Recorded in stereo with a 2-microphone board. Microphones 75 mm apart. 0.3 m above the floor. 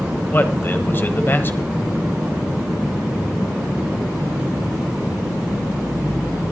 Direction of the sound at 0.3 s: 30° left (ahead or behind).